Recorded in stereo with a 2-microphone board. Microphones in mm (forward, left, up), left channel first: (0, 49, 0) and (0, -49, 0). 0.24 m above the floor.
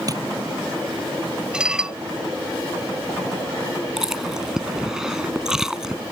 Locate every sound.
0.1 s tapping: 40° right (ahead or behind)
1.5 s dishes clattering: 10° right (ahead or behind)
4.0 s chewing: 5° right (ahead or behind)